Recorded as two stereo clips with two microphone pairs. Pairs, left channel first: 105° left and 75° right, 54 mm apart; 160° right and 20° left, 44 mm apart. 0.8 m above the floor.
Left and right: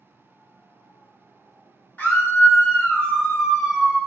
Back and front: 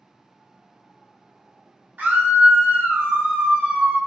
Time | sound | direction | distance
2.0 | a scream | 55° left | 1.2 m